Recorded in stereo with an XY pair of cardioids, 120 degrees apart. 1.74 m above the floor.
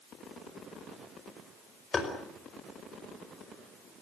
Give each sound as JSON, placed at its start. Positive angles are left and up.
{"t": 1.9, "sound": "tapping", "azimuth_deg": 30, "distance_m": 5.0}